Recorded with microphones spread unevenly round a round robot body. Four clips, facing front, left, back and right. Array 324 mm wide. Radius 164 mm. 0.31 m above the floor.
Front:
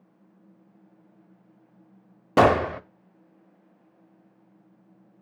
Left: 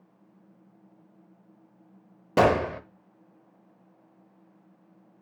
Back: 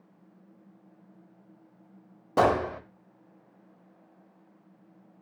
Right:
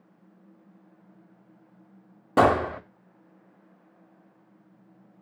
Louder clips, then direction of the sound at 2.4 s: Right 1 dB, front 5 dB; 5° right.